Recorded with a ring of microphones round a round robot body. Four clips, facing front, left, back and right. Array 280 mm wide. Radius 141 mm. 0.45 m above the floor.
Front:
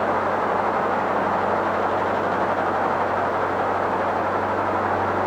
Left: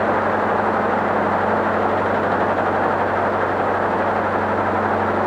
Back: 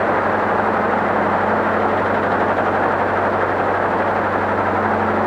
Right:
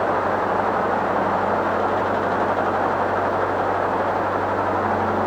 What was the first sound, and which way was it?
Only background noise.